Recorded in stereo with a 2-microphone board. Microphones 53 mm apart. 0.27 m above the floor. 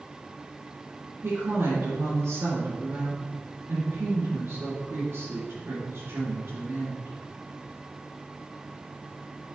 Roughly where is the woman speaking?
Right.